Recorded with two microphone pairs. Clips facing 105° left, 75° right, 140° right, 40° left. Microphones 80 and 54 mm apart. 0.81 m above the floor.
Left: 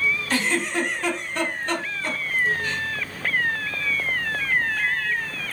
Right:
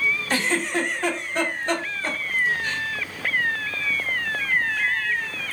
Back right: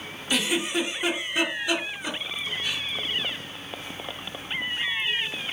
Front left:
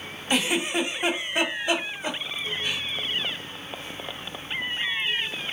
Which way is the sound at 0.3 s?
15° right.